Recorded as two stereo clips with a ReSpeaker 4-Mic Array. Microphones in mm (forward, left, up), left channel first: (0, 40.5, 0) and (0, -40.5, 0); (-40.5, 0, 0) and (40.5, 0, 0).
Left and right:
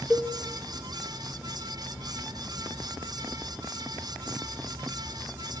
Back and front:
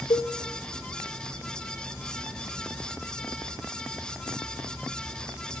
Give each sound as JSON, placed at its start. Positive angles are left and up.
{"t": 0.1, "sound": "a cowbell", "azimuth_deg": -165, "distance_m": 1.7}